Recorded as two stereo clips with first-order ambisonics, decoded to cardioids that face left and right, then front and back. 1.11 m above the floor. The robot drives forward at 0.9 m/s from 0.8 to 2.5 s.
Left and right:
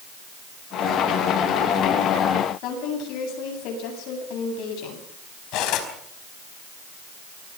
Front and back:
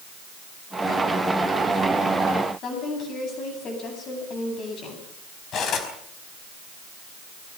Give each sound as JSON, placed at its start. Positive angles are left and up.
{"t": 2.6, "sound": "a woman speaking", "azimuth_deg": 55, "distance_m": 9.5}
{"t": 5.5, "sound": "cutlery clinking", "azimuth_deg": 55, "distance_m": 4.5}